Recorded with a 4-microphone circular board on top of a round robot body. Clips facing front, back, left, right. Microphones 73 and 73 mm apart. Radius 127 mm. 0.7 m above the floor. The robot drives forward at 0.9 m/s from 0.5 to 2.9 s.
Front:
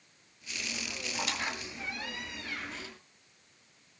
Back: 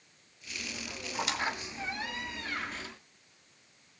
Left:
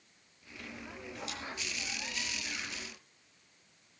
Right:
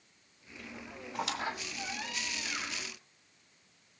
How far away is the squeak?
About 2 m.